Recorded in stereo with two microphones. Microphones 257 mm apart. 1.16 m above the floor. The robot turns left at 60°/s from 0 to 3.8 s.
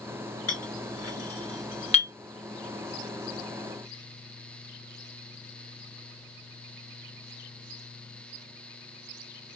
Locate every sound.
0.5 s a clink: 65° left (ahead or behind), 1.3 m; by 2.1 s 15° left (ahead or behind), 1.3 m